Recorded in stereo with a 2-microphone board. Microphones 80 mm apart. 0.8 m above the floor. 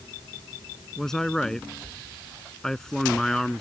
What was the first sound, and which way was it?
A man speaking, 5° left (ahead or behind).